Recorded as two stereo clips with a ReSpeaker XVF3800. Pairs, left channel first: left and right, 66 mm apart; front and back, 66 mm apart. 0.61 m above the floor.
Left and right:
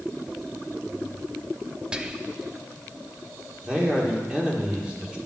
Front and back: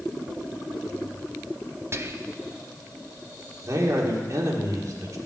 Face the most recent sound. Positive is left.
turn(degrees=-165)